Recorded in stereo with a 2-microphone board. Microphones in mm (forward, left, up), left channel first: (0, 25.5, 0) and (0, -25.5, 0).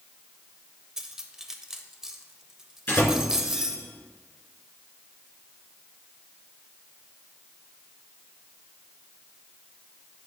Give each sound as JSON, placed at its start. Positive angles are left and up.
{"t": 1.0, "sound": "cutlery clinking", "side_deg": -10, "distance_m": 0.6}
{"t": 2.9, "sound": "a door slam", "side_deg": 40, "distance_m": 2.5}